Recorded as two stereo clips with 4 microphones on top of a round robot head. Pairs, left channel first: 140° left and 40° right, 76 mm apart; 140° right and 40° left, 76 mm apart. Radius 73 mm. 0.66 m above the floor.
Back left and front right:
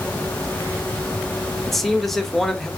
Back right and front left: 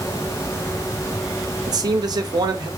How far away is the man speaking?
About 1.2 m.